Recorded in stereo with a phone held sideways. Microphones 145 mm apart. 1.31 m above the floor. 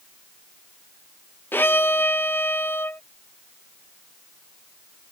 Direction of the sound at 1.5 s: 15° left (ahead or behind).